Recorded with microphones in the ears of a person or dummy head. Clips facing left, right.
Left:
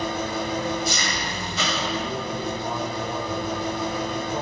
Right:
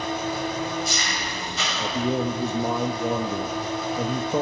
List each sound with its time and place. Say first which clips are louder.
0.0 s an engine running: even; 85° left, 4.5 m
1.8 s a man speaking: right 4 dB; 55° right (ahead or behind), 1.7 m